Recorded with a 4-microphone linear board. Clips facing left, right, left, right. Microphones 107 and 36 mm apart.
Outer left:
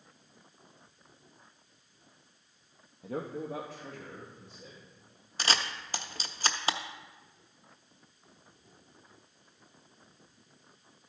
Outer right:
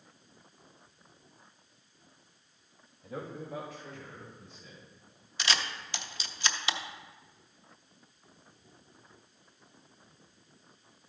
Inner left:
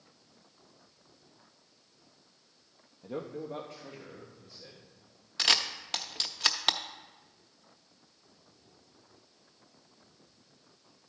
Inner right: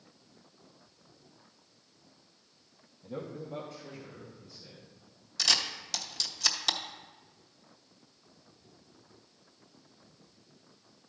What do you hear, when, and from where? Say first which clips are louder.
3.0 s a man speaking: outer left 4 dB, inner left 2 dB; 70° left (ahead or behind), 0.9 m
5.4 s a camera shutter: outer left 1 dB, inner left 2 dB; 40° left (ahead or behind), 0.6 m